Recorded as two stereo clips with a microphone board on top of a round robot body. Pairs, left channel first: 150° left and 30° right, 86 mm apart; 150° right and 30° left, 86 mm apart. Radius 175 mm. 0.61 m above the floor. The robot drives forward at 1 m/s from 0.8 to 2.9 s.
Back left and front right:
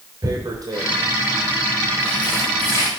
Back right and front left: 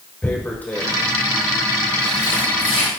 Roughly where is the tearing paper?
Right.